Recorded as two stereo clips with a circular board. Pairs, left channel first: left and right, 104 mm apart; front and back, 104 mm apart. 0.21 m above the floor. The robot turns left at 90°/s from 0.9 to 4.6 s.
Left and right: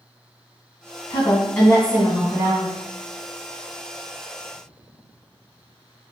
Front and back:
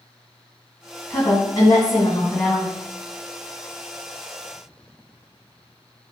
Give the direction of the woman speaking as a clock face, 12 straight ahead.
10 o'clock.